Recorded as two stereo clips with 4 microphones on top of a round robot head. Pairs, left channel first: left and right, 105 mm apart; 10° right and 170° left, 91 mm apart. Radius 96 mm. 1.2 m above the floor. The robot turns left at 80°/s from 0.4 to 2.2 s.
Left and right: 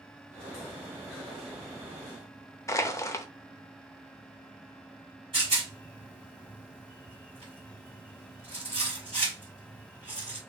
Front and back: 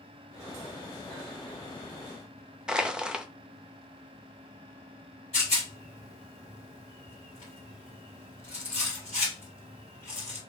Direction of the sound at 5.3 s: 35° right.